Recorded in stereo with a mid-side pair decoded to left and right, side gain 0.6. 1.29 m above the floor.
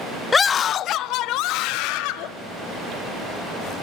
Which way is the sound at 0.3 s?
25° left.